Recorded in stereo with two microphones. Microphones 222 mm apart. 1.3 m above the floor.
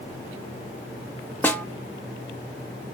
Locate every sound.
1.4 s a snare drum: 10° left (ahead or behind), 0.7 m